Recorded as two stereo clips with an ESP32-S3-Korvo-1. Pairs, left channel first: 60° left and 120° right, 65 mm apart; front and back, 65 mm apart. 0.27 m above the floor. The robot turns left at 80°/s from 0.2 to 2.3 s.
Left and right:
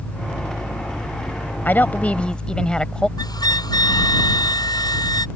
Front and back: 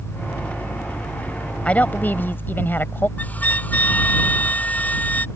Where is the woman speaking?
50° left; by 3.1 s 5° right.